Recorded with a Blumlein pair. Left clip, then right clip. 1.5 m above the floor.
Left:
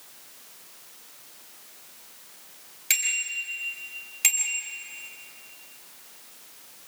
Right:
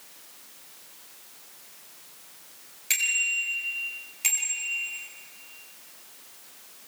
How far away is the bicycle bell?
About 6 m.